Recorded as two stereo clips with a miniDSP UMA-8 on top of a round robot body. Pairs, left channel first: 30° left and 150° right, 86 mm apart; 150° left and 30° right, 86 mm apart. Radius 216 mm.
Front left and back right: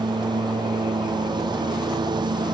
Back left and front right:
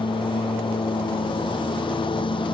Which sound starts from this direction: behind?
A lawn mower, at 0.0 s.